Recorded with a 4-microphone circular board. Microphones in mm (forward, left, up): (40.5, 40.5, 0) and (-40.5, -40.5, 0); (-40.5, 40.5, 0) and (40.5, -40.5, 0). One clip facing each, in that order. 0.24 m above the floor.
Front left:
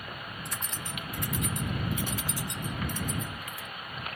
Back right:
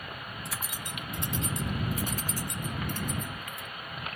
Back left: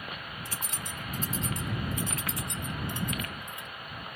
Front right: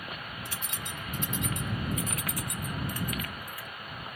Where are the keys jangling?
135° left; by 3.7 s 160° right.